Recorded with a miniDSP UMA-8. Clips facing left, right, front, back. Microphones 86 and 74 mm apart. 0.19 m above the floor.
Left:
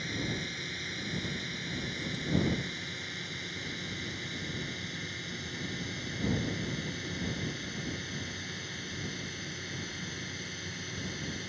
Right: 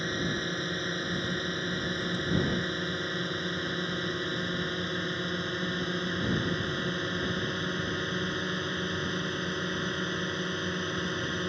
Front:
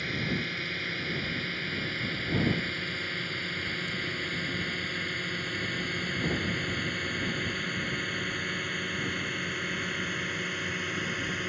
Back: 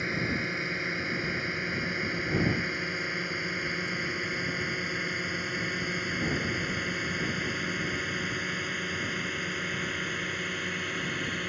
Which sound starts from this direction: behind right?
A drone, at 0.0 s.